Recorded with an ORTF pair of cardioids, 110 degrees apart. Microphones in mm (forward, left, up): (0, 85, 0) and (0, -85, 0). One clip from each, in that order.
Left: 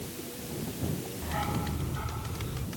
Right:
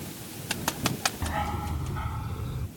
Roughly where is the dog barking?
Ahead right.